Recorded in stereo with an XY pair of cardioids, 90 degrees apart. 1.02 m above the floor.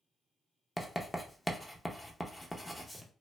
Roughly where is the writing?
Ahead.